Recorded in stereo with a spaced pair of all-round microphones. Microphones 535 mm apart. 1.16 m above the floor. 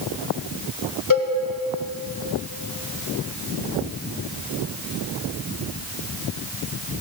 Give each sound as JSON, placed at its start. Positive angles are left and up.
{"t": 1.1, "sound": "a cowbell", "side_deg": 35, "distance_m": 1.6}